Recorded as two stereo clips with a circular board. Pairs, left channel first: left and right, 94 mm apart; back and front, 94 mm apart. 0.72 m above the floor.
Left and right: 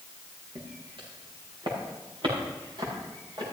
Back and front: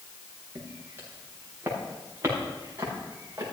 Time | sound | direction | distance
0.6 | footsteps | 65° right | 7 m